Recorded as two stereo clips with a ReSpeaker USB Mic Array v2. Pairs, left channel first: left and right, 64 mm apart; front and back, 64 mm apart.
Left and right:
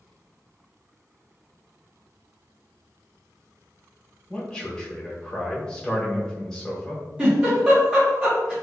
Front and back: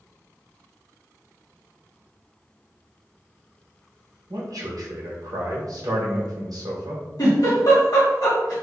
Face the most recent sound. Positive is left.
turn(degrees=-15)